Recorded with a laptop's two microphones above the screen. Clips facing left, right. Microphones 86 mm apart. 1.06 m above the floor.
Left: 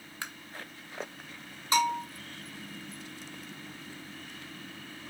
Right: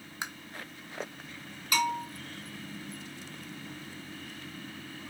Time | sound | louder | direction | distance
0.2 | tapping | right 2 dB | 20° right (ahead or behind) | 0.7 m
1.7 | a bell | left 2 dB | 30° left (ahead or behind) | 2.5 m